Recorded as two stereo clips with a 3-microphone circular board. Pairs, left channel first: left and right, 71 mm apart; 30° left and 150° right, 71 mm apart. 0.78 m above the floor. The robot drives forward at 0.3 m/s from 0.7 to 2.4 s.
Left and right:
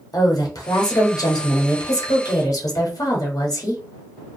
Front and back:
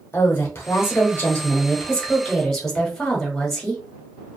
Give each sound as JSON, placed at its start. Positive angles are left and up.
{"t": 0.1, "sound": "a woman speaking", "azimuth_deg": 80, "distance_m": 1.0}